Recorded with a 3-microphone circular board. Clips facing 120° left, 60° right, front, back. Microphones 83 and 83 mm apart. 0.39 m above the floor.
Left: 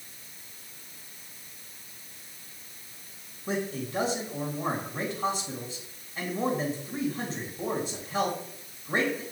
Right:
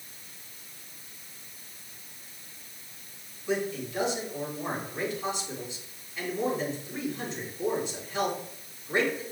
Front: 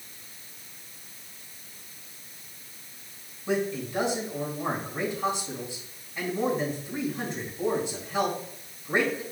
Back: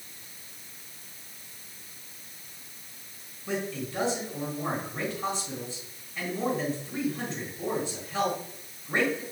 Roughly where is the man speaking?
Left.